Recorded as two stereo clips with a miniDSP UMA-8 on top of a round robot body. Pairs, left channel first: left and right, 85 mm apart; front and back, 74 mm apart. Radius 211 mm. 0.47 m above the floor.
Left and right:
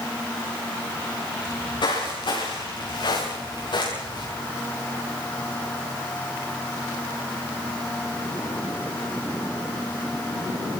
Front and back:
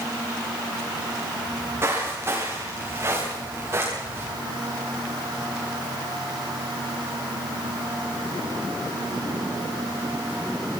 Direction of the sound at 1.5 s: 125° left.